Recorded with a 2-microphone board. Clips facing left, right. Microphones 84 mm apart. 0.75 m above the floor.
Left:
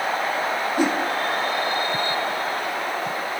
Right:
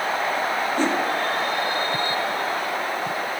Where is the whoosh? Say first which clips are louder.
Left 2 dB; 10° left (ahead or behind), 1.2 m.